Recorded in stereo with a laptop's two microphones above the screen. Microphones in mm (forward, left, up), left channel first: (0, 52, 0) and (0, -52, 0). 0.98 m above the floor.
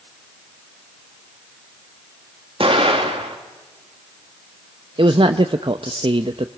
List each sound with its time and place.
2.6 s an explosion: 60° right (ahead or behind), 2 m
5.0 s a man speaking: 55° right (ahead or behind), 0.7 m